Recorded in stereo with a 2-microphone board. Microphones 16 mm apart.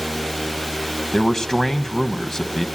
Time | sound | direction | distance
1.1 | a man speaking | 30° left (ahead or behind) | 1.2 m